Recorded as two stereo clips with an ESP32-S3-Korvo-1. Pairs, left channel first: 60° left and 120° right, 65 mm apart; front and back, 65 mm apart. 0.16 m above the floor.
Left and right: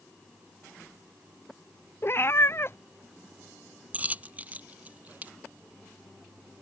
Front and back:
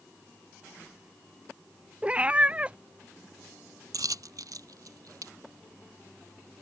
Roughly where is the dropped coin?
Behind.